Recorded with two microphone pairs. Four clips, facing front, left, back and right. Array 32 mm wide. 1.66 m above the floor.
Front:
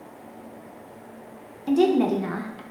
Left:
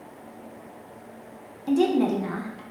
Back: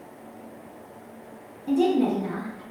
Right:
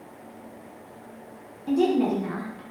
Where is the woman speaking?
25° left, 0.6 m.